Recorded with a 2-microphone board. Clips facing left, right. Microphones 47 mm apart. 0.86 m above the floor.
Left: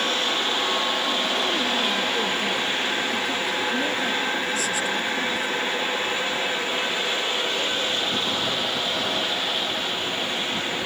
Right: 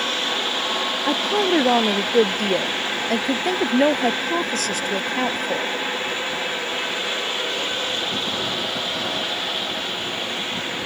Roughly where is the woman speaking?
Right.